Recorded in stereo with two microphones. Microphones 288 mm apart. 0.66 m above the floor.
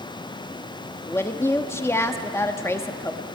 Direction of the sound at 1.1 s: 10° left (ahead or behind).